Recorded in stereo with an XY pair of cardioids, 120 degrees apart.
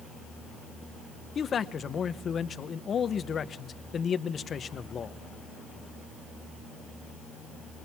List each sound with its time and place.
1.4 s a man speaking: 40° left, 0.8 m